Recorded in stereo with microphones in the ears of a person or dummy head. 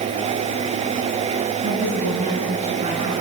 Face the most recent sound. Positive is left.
turn(degrees=-30)  # may be behind; listen again after turning